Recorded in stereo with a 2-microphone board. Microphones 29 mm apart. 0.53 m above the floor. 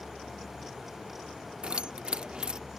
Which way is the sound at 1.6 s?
40° right (ahead or behind).